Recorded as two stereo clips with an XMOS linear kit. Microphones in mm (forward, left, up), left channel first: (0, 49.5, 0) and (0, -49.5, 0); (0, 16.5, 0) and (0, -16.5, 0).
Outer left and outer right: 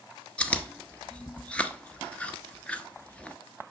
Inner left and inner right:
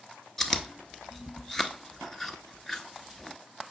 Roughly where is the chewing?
Centre.